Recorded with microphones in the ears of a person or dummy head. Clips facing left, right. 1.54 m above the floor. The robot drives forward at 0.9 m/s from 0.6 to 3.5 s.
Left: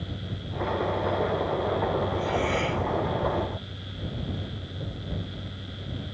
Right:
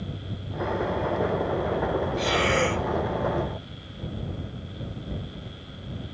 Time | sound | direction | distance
2.2 | breathing | 70° right (ahead or behind) | 0.6 m